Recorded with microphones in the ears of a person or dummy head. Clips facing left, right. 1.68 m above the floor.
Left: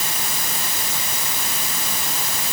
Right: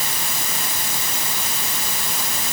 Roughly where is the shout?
No shout in this recording.